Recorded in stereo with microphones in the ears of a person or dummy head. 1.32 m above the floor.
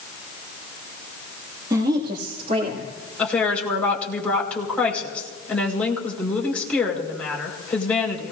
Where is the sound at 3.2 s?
10° left (ahead or behind), 5 m.